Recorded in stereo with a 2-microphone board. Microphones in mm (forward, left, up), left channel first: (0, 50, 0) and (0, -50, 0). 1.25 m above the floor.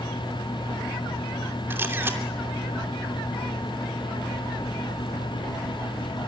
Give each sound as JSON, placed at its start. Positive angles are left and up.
{"t": 1.7, "sound": "a camera shutter", "side_deg": -25, "distance_m": 2.5}